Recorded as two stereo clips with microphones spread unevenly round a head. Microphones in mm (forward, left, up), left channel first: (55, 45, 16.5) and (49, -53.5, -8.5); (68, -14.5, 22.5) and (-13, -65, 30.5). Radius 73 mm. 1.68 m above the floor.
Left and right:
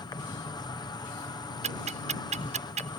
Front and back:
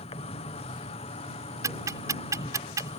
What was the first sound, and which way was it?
An insect, 35° left.